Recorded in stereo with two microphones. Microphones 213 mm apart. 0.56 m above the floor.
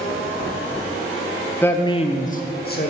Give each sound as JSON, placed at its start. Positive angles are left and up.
{"t": 1.6, "sound": "a man speaking", "side_deg": 10, "distance_m": 0.7}